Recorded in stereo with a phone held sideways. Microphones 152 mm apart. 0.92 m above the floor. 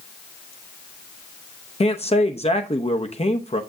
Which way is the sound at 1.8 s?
45° left (ahead or behind).